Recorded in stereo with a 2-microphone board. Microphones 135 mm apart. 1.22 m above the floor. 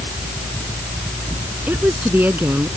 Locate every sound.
1.7 s a woman speaking: 15° right (ahead or behind)